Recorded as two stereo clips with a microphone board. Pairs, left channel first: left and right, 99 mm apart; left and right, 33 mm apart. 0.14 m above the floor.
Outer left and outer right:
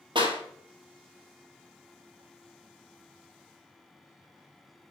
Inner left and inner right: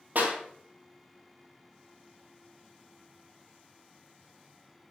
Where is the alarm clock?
No alarm clock in this recording.